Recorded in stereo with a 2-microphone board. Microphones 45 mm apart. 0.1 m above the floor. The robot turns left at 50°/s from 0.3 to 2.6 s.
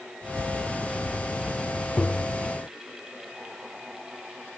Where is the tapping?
55° left (ahead or behind); by 2.4 s 35° left (ahead or behind).